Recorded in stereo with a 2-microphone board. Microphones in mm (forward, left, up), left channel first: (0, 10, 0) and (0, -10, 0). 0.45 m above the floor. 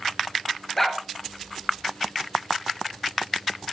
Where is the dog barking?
15° left (ahead or behind), 2.5 m.